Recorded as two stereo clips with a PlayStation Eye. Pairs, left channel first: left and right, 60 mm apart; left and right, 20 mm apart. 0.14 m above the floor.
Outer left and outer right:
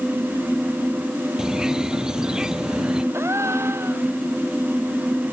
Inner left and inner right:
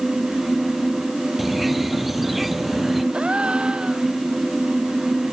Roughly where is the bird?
Centre.